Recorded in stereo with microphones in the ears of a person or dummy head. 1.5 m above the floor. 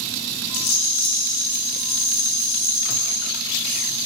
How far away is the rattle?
About 1.0 m.